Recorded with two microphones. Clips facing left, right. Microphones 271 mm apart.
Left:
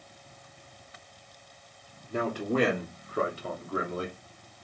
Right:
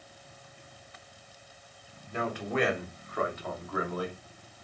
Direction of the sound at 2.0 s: 45° left (ahead or behind).